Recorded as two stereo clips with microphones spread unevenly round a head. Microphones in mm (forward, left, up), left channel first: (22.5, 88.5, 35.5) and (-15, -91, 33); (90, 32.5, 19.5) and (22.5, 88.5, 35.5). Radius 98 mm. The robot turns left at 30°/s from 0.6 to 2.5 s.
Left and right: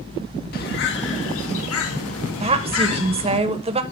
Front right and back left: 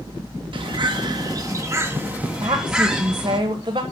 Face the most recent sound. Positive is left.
turn(degrees=-160)